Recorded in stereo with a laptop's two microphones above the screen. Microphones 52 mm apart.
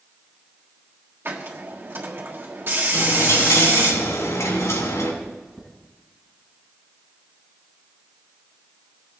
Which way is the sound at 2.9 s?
75° left (ahead or behind).